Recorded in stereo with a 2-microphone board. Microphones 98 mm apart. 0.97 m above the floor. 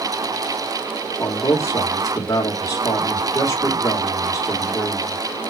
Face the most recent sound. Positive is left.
turn(degrees=30)  # may be behind; listen again after turning